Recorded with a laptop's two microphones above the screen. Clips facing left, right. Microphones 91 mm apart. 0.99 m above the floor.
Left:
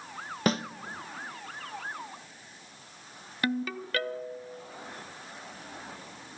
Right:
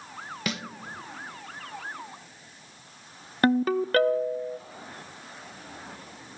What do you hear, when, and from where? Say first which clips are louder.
0.5 s a snare drum: left 7 dB; 35° left (ahead or behind), 0.6 m
3.4 s a ringtone: right 9 dB; 40° right (ahead or behind), 0.5 m